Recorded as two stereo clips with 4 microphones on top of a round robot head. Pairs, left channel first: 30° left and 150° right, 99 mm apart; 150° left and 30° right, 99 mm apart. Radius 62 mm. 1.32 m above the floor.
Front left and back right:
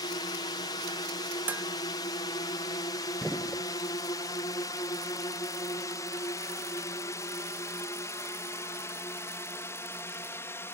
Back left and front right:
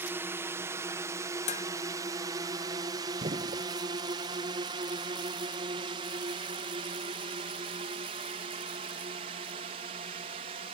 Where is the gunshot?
55° right.